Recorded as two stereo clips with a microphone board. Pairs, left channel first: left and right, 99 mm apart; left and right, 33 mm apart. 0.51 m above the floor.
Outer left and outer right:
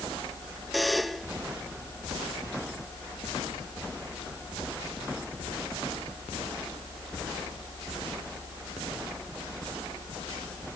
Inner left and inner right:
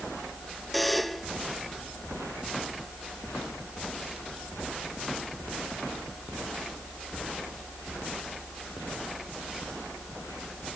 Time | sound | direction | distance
0.7 | a buzzer | centre (ahead or behind) | ?